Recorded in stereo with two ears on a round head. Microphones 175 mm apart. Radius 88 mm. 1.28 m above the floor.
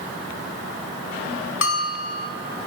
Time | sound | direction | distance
1.6 | a bell | 70° left (ahead or behind) | 1.8 m